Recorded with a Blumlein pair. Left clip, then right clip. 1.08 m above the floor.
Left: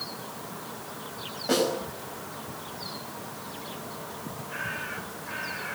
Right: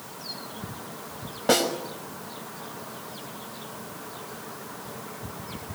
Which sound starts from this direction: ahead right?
A snare drum, at 1.5 s.